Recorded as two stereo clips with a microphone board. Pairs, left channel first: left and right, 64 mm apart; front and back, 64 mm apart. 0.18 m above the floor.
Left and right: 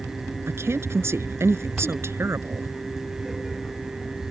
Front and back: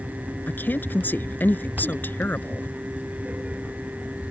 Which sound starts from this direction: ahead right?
A woman speaking, at 0.5 s.